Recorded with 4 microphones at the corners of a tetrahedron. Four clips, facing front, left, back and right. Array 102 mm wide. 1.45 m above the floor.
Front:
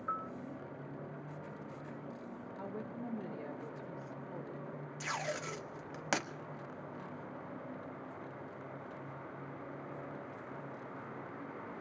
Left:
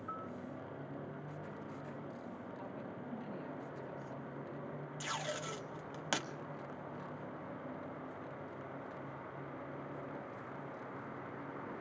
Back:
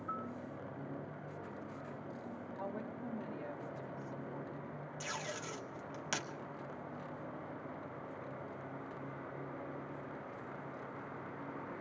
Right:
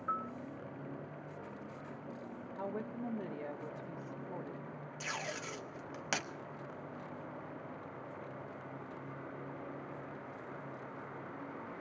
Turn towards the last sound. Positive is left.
turn(degrees=15)